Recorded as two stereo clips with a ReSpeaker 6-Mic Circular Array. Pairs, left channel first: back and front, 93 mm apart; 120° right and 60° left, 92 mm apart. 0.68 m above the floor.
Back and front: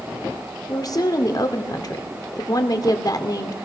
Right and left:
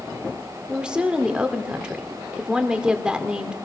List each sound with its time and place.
0.7 s a woman speaking: 140° left, 2 m